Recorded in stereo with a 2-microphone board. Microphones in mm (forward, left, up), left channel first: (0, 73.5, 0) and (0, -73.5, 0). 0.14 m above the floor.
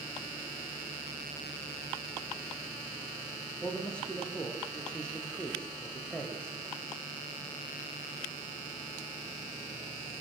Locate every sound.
3.6 s a man speaking: 5° left (ahead or behind), 5.5 m